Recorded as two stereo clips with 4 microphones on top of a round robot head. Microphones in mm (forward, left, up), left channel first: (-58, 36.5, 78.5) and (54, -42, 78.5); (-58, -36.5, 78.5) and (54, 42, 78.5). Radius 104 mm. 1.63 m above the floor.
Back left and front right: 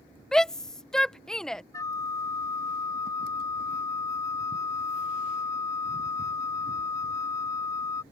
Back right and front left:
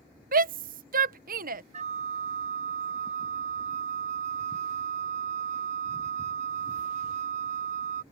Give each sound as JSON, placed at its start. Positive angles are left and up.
{"t": 0.3, "sound": "a shout", "azimuth_deg": 60}
{"t": 1.7, "sound": "a flute", "azimuth_deg": 75}